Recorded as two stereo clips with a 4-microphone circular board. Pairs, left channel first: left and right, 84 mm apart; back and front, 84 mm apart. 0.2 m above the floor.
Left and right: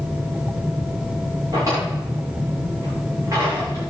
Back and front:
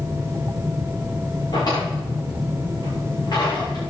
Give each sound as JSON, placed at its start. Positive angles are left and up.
{"t": 1.5, "sound": "a drawer", "azimuth_deg": -140, "distance_m": 9.0}